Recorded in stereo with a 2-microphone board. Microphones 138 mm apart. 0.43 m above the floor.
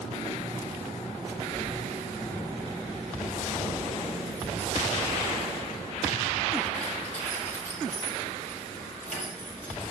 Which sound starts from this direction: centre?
Keys jangling, at 1.5 s.